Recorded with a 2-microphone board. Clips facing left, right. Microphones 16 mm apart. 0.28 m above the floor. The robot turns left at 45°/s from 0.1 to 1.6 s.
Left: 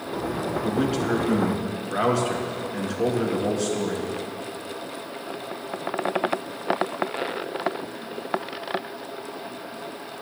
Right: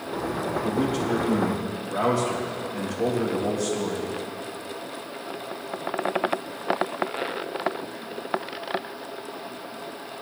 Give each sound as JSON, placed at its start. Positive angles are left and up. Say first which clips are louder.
{"t": 0.6, "sound": "a man speaking", "louder": "left 2 dB", "azimuth_deg": 120, "distance_m": 3.5}